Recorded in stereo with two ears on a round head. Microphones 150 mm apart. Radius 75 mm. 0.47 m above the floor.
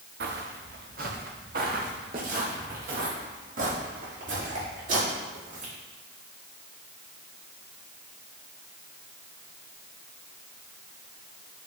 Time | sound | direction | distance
0.2 | footsteps | 70° right (ahead or behind) | 2 m